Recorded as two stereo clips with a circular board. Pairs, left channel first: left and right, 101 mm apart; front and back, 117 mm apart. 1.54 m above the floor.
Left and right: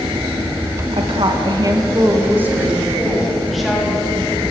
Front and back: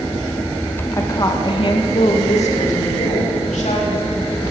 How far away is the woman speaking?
About 1.8 m.